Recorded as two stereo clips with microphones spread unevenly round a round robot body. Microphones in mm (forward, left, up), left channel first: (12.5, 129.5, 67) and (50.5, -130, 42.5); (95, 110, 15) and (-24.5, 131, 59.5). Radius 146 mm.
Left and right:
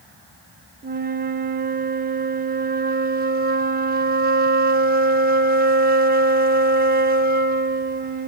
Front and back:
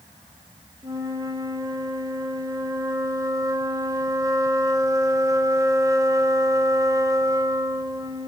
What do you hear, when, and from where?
0.8 s a flute: 110° right, 0.7 m